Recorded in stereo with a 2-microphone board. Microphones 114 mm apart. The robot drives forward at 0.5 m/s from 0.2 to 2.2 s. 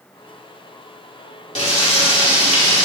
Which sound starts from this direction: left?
Frying, at 1.6 s.